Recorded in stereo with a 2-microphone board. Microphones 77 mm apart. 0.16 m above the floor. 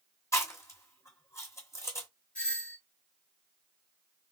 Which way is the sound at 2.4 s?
20° left (ahead or behind).